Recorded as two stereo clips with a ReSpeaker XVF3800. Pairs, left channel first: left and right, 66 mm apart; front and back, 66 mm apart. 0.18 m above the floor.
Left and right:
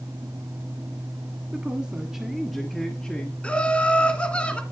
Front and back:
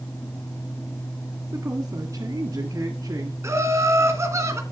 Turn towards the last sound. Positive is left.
turn(degrees=160)